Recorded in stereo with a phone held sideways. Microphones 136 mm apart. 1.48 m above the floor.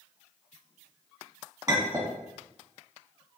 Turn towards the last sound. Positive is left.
turn(degrees=-30)  # may be behind; listen again after turning